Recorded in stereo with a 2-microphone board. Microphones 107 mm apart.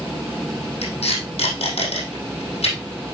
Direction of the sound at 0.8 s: 75° left (ahead or behind).